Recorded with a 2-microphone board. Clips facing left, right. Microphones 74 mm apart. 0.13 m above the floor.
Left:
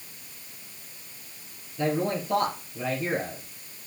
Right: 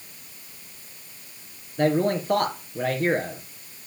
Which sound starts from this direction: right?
A man speaking, at 1.8 s.